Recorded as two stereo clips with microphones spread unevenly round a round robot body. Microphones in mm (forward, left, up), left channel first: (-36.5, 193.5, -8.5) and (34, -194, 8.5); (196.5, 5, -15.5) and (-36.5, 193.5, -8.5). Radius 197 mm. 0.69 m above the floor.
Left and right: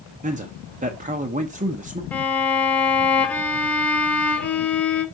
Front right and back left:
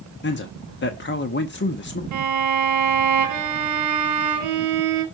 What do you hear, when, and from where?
0.2 s a man speaking: 15° right, 0.9 m
2.1 s a violin: 175° right, 2 m